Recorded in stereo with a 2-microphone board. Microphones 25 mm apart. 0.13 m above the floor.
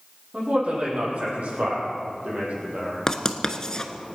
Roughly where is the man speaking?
Right.